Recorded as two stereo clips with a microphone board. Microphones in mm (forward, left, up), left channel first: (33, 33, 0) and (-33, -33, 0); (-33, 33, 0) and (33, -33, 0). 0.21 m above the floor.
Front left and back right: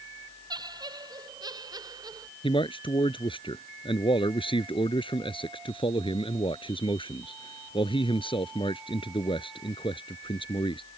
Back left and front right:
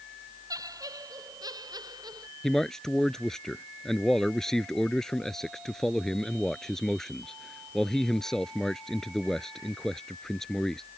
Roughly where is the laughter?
Right.